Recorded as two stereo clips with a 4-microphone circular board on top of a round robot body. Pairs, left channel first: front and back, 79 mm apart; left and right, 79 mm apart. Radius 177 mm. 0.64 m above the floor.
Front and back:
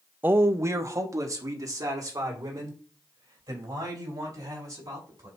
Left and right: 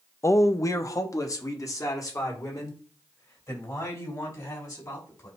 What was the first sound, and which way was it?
A man speaking, 125° left.